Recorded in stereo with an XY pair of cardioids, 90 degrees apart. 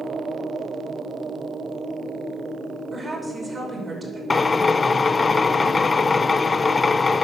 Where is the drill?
30° left, 0.5 m.